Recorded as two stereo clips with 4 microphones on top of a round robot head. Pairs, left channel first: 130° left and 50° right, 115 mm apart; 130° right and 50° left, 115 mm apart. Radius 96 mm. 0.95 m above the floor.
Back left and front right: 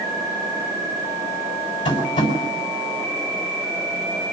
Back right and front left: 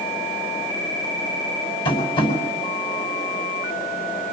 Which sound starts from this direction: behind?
Tapping, at 1.9 s.